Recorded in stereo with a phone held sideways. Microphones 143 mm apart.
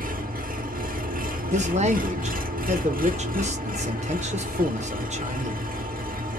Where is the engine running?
90° right, 0.8 m.